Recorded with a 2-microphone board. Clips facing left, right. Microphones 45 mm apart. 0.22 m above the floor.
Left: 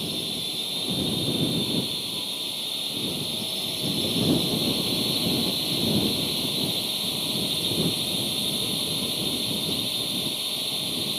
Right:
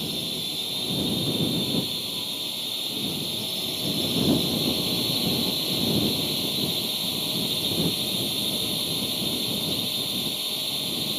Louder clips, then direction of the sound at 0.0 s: Even; centre (ahead or behind).